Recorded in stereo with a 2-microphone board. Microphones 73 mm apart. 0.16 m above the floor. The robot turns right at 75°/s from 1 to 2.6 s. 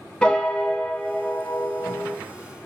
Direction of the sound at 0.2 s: 15° left (ahead or behind).